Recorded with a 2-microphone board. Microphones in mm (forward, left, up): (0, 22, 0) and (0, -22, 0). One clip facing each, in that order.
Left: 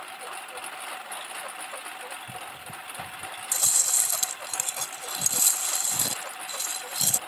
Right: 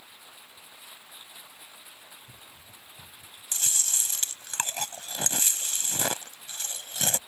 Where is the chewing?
45° right (ahead or behind).